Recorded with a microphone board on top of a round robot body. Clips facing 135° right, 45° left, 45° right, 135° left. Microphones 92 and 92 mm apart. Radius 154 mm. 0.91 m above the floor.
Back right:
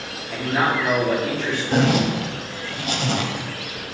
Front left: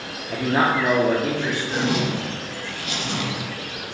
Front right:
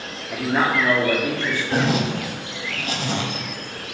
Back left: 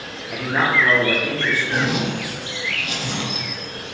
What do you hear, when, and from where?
0.3 s a man speaking: 40° left, 1.1 m; by 1.6 s 55° left, 1.8 m
1.7 s a zipper: 95° right, 0.6 m